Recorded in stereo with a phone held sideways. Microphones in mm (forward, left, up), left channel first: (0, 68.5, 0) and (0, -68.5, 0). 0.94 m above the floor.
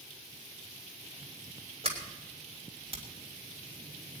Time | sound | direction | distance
1.8 | a sliding door | 45° right (ahead or behind) | 3 m